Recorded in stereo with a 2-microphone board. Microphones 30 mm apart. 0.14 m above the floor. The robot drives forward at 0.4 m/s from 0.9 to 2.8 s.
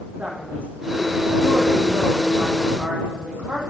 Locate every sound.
0.2 s a man speaking: 70° right (ahead or behind), 5.5 m; by 3.6 s 75° right (ahead or behind), 5.5 m